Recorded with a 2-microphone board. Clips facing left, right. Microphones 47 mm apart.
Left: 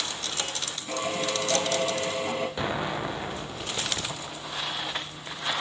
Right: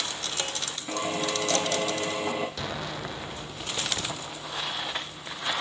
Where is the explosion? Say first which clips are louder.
Left 5 dB; 25° left (ahead or behind), 2 m.